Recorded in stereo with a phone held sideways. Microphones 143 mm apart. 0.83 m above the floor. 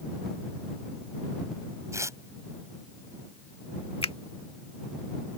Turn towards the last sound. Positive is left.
turn(degrees=45)  # may be behind; listen again after turning